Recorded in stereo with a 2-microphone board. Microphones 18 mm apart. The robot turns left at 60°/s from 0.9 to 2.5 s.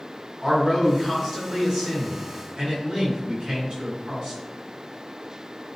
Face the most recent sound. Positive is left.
turn(degrees=-85)